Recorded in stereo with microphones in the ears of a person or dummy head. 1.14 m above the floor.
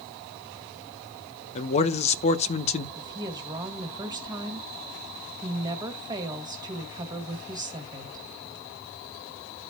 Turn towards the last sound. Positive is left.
turn(degrees=-25)  # may be behind; listen again after turning